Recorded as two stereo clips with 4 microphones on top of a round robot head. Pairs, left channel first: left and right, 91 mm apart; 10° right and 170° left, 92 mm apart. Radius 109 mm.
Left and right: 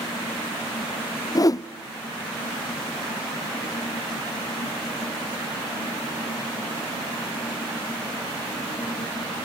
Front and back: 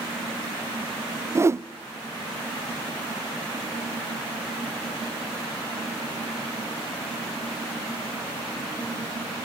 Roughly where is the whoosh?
Behind left.